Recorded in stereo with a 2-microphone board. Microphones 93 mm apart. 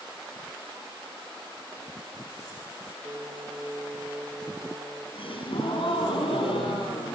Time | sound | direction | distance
3.0 | singing | 50° right (ahead or behind) | 4.5 m
5.1 | a gasp | 70° left (ahead or behind) | 10 m